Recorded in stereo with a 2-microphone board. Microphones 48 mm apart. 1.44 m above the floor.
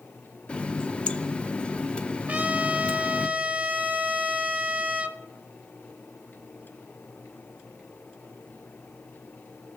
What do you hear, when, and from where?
0.5 s a running tap: 20° left (ahead or behind), 0.5 m
2.3 s a trumpet: 30° right (ahead or behind), 0.6 m